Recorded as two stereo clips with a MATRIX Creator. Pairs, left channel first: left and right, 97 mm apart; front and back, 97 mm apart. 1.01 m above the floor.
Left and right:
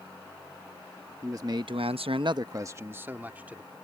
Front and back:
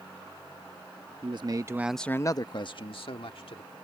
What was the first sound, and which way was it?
A man speaking, 150° right.